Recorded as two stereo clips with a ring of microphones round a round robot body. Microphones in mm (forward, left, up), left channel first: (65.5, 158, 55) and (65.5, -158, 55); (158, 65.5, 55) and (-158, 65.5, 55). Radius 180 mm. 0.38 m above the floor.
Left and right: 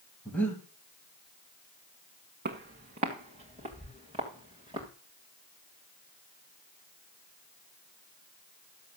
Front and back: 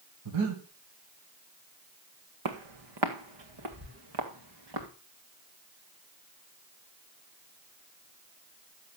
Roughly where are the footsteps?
Behind right.